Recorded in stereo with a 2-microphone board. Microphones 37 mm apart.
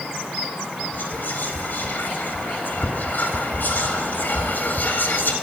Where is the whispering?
70° left (ahead or behind), 2.5 m.